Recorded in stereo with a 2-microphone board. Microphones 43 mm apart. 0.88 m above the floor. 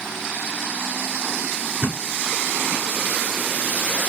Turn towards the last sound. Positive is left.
turn(degrees=-55)  # may be behind; listen again after turning